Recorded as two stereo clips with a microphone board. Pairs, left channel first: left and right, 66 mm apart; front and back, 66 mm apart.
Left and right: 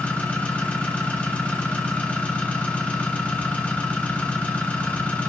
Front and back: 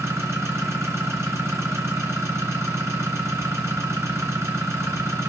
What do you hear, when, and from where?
0.0 s an engine running: 150° left, 1.7 m